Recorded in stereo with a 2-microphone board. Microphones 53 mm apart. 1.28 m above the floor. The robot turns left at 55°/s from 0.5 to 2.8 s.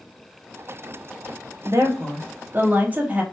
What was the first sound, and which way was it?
A woman speaking, 85° right.